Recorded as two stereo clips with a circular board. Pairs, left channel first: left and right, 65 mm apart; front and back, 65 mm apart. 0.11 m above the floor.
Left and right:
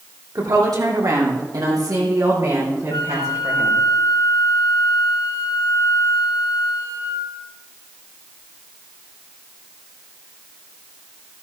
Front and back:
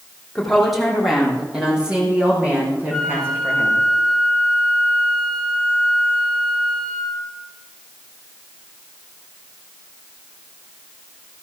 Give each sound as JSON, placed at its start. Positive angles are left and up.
{"t": 0.3, "sound": "a woman speaking", "azimuth_deg": -85, "distance_m": 4.0}
{"t": 2.9, "sound": "a flute", "azimuth_deg": 90, "distance_m": 3.0}